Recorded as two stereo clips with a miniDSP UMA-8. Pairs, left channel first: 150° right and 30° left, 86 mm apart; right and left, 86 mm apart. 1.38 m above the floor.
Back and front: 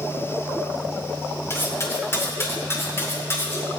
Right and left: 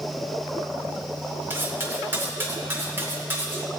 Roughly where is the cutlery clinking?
Behind left.